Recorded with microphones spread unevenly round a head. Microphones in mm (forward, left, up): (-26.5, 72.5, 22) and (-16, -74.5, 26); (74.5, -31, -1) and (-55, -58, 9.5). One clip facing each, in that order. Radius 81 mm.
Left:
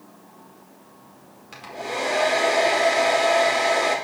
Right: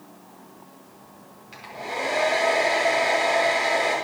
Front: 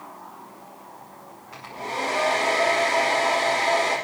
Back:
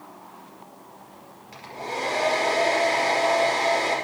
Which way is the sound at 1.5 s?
125° left.